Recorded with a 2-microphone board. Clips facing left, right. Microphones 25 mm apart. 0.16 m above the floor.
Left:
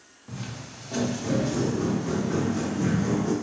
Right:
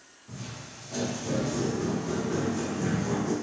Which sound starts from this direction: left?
Footsteps, at 0.3 s.